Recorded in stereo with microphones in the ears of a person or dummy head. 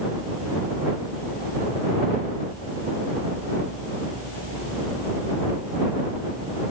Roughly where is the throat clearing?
No throat clearing in this recording.